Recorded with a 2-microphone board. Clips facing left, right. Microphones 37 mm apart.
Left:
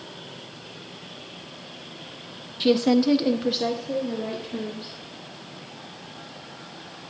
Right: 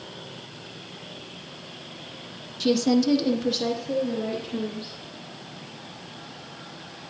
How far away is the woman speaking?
About 0.8 m.